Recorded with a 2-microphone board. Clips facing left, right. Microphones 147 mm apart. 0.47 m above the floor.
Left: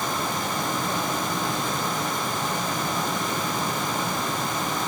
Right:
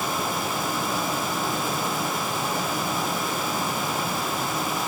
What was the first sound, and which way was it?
Only background noise.